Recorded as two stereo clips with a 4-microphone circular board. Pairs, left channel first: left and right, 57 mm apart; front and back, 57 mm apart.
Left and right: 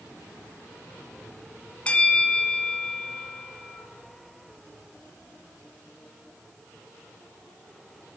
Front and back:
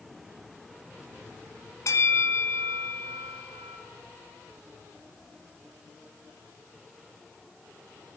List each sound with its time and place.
1.9 s a bell: 25° left, 1.3 m